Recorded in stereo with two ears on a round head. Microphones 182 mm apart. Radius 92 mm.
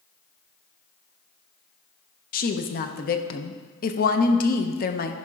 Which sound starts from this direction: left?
A woman speaking, at 2.3 s.